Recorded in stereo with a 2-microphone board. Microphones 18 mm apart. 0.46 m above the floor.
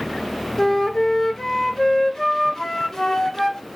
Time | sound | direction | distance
0.6 | a flute | 35° left (ahead or behind) | 1.6 m